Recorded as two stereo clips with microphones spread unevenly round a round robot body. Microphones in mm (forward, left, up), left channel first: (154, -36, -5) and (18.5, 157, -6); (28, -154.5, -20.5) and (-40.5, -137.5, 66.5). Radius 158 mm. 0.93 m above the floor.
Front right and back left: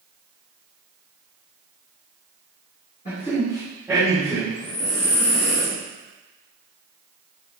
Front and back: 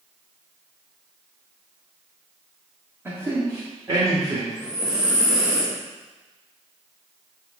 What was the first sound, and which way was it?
A man speaking, 125° right.